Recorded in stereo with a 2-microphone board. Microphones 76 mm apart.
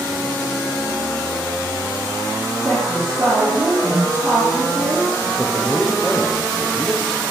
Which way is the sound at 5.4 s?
10° left (ahead or behind).